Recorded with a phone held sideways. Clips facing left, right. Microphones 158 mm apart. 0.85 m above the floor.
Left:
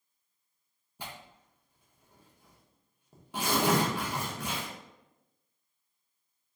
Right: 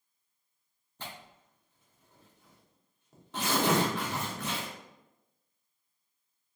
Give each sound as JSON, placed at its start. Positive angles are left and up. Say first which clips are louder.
{"t": 1.0, "sound": "tearing paper", "louder": "left 1 dB", "side_deg": 10, "distance_m": 0.8}